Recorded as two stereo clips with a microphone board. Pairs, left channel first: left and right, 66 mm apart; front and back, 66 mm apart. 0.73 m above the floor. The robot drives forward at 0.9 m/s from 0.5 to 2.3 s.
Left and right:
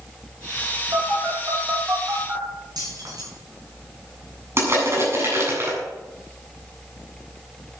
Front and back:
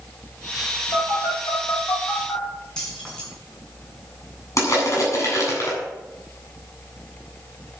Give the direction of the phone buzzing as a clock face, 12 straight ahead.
1 o'clock.